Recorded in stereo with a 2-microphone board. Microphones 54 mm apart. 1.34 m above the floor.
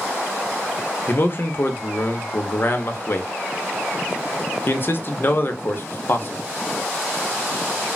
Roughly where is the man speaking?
Left.